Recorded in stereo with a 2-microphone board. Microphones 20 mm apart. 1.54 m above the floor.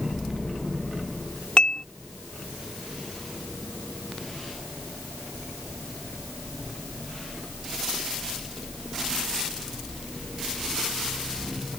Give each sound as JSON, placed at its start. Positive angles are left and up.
{"t": 1.6, "sound": "dishes clattering", "side_deg": 60}